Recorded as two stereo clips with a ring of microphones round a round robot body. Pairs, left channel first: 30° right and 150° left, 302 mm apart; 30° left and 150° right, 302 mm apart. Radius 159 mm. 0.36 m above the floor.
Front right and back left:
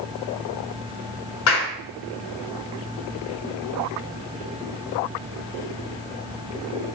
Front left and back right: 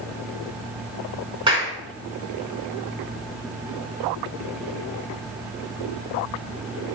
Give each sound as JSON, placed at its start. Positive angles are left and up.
{"t": 1.5, "sound": "a clap", "azimuth_deg": -75, "distance_m": 4.5}